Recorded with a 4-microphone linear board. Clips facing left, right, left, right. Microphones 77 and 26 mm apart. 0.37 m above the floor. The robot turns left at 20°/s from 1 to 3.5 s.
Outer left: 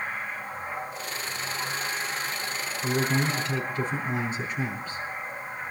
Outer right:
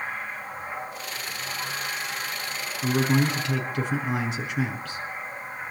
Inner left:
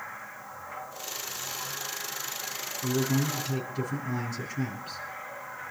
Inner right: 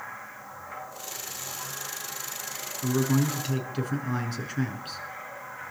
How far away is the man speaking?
About 5.5 m.